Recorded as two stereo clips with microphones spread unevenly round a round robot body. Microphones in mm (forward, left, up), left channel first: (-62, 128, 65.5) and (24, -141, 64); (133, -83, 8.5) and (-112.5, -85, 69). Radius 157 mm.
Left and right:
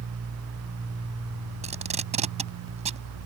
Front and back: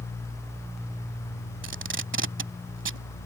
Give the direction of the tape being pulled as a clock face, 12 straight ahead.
5 o'clock.